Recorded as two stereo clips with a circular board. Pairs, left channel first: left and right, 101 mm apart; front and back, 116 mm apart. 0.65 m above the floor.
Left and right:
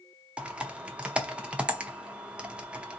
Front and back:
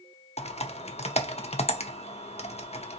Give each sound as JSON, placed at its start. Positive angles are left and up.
{"t": 0.4, "sound": "typing on a keyboard", "azimuth_deg": -10, "distance_m": 0.6}